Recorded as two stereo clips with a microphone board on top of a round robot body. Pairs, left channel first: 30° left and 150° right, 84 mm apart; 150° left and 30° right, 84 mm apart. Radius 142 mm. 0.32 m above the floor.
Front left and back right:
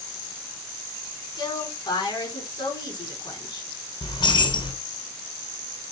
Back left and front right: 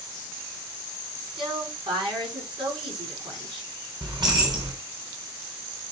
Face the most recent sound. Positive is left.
turn(degrees=5)